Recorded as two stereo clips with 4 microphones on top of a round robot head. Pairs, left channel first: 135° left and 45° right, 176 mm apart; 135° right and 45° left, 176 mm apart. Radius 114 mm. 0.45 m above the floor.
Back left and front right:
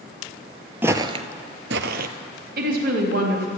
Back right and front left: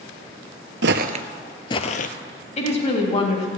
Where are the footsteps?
30° left, 0.7 m; by 2.1 s 90° right, 0.9 m.